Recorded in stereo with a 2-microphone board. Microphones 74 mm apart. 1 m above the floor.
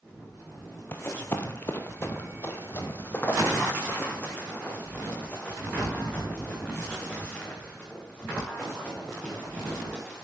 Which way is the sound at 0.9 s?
30° left (ahead or behind).